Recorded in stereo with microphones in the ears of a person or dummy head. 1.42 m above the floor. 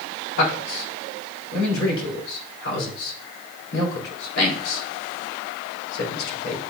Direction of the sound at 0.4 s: 70° left (ahead or behind).